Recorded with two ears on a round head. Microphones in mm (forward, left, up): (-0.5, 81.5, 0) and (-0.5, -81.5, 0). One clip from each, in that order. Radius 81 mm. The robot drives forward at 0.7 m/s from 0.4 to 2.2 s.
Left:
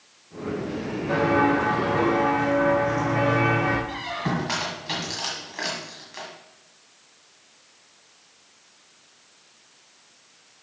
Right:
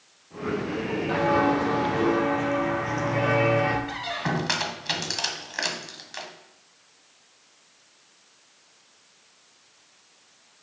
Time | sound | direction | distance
1.1 | footsteps | 15° right (ahead or behind) | 2 m
3.9 | a squeak | 45° right (ahead or behind) | 1.5 m